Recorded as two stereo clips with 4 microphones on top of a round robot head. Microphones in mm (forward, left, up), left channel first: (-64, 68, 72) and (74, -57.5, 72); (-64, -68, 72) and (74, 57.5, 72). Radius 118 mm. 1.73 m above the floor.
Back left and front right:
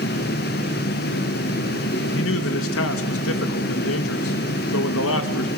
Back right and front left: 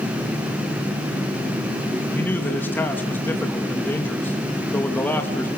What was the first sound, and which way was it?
A man speaking, 140° left.